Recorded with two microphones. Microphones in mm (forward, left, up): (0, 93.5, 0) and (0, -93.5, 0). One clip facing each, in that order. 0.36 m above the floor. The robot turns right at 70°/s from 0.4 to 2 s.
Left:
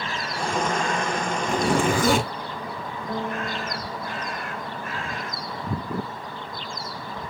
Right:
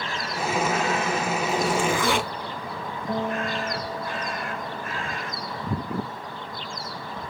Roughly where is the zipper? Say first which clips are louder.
Left 3 dB; left.